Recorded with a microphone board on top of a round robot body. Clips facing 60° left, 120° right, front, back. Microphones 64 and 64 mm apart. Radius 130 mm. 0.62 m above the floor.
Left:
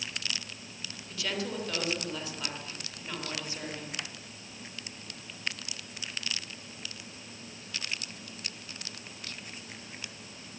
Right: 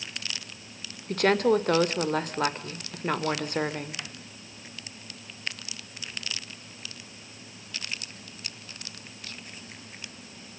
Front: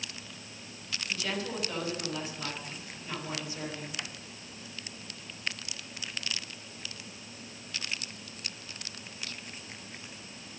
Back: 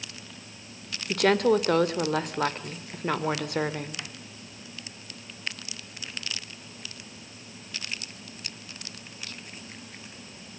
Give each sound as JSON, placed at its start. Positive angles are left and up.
{"t": 1.1, "sound": "a woman speaking", "azimuth_deg": -155, "distance_m": 3.5}